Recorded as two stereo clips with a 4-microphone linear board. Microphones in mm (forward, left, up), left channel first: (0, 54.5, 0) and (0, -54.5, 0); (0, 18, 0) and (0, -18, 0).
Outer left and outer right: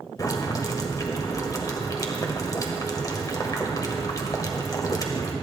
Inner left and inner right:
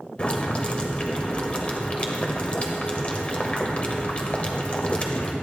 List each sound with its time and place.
0.2 s boiling: 35° left (ahead or behind), 1.8 m